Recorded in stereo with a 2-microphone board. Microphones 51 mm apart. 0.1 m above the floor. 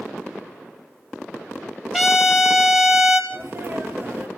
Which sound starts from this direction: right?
A sneeze, at 3.3 s.